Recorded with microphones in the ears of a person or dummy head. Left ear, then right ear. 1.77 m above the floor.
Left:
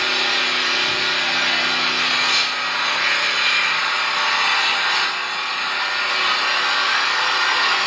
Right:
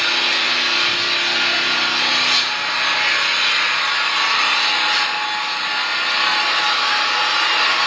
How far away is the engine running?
About 1.5 m.